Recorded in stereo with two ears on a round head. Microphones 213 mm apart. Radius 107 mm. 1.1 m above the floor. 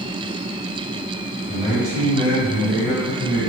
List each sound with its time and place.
1.5 s a man speaking: 35° right (ahead or behind), 1.7 m; by 3.5 s 30° left (ahead or behind), 1.2 m